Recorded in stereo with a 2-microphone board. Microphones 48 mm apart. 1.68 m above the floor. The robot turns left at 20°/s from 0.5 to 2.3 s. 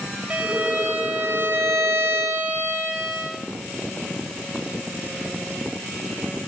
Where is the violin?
35° right, 4 m; by 3.3 s 70° right, 4 m.